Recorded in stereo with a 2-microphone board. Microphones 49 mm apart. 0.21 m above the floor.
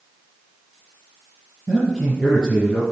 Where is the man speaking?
Centre (ahead or behind), 4.5 m.